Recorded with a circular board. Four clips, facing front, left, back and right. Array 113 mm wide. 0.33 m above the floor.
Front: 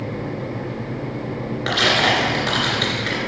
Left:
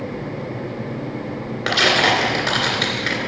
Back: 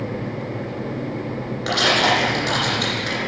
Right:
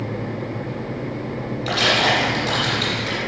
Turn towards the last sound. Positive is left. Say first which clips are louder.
# left 2 dB, back 1 dB
turn(degrees=70)